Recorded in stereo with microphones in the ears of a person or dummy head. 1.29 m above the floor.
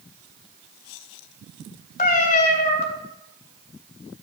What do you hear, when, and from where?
2.0 s a cat meowing: 45° left (ahead or behind), 2.5 m